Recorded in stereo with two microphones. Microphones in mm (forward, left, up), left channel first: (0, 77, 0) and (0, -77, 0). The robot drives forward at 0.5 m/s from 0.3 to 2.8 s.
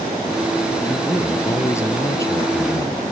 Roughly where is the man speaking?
Centre.